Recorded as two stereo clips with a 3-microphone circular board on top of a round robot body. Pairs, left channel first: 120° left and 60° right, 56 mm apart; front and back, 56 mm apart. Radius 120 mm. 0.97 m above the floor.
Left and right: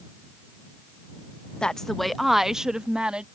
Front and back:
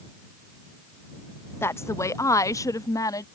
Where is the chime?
No chime in this recording.